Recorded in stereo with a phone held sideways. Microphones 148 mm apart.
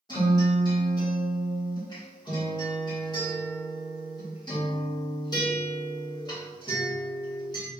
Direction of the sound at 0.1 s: 30° left (ahead or behind).